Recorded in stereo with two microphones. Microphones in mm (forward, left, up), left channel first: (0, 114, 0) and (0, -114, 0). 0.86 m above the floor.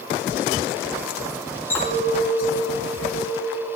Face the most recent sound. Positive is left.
turn(degrees=10)  # may be behind; listen again after turning